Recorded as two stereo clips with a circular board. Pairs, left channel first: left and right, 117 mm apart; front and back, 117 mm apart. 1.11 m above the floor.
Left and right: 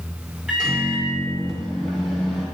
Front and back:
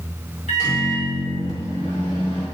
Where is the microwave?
5° right, 2.5 m.